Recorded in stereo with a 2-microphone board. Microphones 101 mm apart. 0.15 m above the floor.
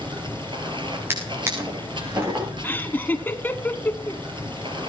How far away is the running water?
About 3 m.